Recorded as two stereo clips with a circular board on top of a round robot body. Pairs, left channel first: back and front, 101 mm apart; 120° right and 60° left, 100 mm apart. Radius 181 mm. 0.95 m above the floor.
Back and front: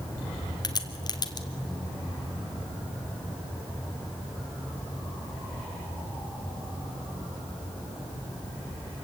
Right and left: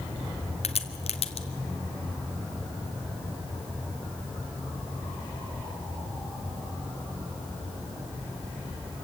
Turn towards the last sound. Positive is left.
turn(degrees=-130)